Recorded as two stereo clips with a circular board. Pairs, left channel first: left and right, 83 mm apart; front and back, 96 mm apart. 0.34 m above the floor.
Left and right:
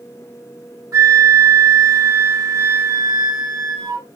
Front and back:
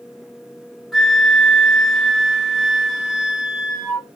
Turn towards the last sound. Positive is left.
turn(degrees=-90)